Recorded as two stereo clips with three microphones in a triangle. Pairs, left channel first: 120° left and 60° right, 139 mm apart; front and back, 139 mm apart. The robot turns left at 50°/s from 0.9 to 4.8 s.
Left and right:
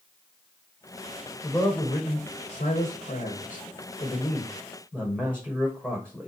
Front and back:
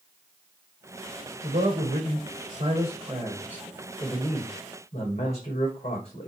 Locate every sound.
1.4 s a man speaking: 150° right, 5.5 m; by 6.3 s 40° left, 5.5 m